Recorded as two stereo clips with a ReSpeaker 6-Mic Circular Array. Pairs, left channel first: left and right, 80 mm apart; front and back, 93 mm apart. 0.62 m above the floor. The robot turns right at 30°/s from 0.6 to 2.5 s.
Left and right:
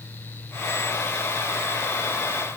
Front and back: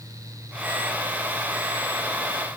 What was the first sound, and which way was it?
Only background noise.